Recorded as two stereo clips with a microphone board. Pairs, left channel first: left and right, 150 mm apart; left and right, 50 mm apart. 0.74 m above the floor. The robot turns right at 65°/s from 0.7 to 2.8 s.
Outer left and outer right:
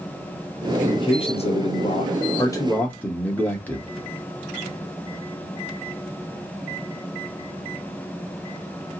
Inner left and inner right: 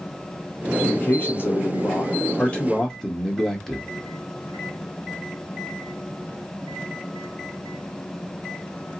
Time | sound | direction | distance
0.8 | a man speaking | 35° left | 0.9 m